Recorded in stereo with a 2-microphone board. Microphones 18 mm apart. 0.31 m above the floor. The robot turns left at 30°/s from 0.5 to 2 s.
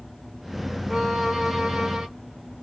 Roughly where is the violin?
Ahead.